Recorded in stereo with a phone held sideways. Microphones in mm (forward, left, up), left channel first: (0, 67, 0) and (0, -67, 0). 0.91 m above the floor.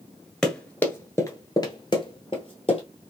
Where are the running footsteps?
5° left (ahead or behind), 0.9 m; by 2.8 s 40° left (ahead or behind), 1.4 m.